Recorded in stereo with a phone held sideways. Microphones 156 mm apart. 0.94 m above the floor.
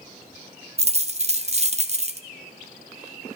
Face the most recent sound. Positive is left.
turn(degrees=-45)  # may be behind; listen again after turning